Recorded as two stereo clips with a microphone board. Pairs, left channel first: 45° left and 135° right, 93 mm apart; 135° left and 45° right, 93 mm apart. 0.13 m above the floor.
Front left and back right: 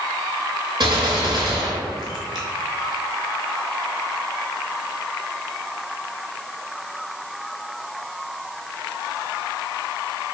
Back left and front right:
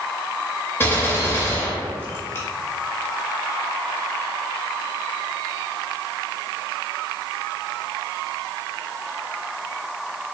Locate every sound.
0.8 s a gunshot: 160° right, 0.7 m